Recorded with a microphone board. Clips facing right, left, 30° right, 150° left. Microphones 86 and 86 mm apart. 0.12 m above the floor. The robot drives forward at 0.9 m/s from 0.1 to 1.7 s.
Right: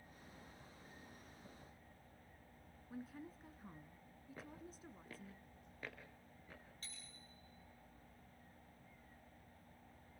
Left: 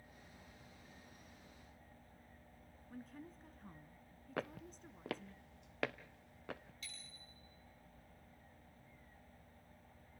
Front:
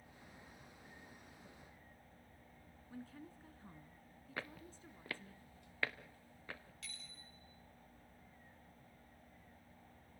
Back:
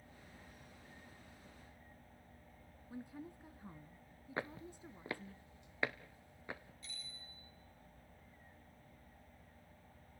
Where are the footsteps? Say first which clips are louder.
Left 11 dB, back 5 dB; 85° left, 0.8 m; by 6.7 s 80° left, 2.0 m.